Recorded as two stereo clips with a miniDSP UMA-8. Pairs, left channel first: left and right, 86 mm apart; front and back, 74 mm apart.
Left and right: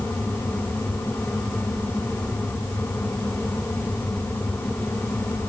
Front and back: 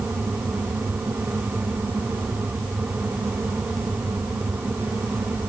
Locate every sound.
Only background noise.